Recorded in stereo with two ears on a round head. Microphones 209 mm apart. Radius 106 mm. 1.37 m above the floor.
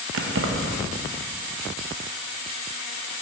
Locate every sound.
0.1 s keys jangling: 60° right (ahead or behind), 0.9 m